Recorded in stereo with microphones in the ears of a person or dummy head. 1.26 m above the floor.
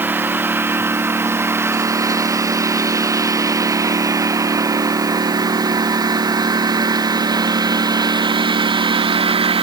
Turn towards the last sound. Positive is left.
turn(degrees=-25)  # may be behind; listen again after turning